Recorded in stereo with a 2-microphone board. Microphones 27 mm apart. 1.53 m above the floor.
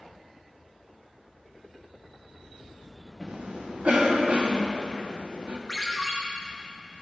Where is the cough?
55° right (ahead or behind), 1.2 m.